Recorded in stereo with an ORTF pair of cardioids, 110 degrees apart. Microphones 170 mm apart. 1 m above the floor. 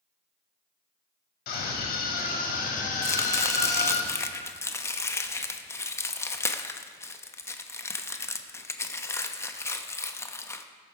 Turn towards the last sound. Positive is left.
turn(degrees=15)